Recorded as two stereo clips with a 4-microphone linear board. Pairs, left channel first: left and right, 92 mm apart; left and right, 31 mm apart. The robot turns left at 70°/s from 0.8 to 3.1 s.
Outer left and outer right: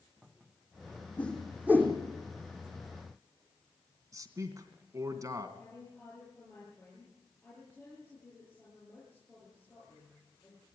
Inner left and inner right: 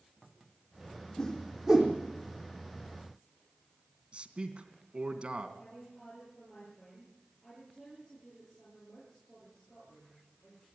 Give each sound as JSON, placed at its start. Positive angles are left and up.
{"t": 1.2, "sound": "a whoosh", "side_deg": 20, "distance_m": 4.0}
{"t": 4.1, "sound": "a man speaking", "side_deg": -35, "distance_m": 2.5}
{"t": 5.6, "sound": "a woman speaking", "side_deg": 20, "distance_m": 10.0}